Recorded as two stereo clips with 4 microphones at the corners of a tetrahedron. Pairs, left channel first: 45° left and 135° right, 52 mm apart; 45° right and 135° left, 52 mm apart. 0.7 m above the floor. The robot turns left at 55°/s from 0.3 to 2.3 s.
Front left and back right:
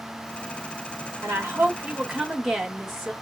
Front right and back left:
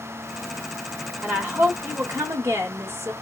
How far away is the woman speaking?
About 1.7 m.